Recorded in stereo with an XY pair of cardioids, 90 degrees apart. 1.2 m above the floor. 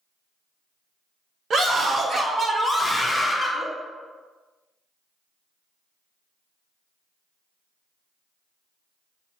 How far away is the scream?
About 1.4 m.